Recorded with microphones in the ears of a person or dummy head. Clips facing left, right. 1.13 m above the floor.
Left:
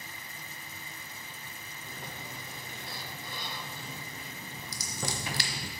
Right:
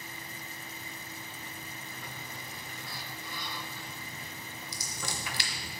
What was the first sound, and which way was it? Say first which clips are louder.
A sliding door: left 1 dB; 25° left (ahead or behind).